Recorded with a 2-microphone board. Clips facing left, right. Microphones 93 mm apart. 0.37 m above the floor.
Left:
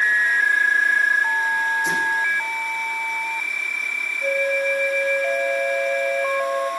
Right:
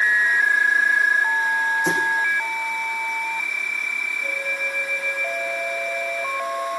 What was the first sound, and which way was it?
A thud, 70° right (ahead or behind).